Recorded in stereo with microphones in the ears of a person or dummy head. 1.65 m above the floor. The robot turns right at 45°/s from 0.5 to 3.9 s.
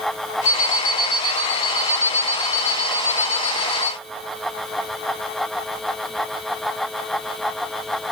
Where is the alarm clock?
90° left, 1.4 m; by 3.9 s 115° right, 1.4 m.